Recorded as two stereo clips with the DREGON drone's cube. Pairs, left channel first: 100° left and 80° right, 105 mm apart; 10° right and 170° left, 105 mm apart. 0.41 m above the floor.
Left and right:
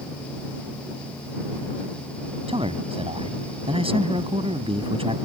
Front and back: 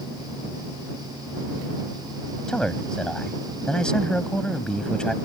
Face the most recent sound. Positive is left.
turn(degrees=-90)